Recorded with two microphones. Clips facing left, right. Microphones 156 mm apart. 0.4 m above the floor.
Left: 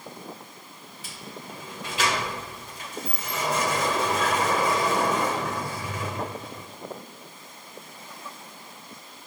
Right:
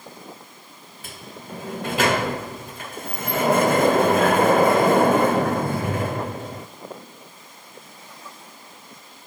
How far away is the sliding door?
About 0.7 m.